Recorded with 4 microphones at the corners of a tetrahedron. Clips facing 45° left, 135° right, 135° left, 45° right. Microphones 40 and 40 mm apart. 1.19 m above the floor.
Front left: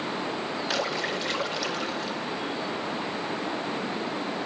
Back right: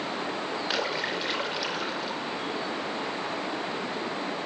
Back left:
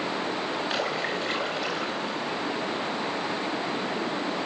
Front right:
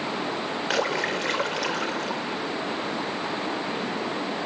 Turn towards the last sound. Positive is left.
turn(degrees=-55)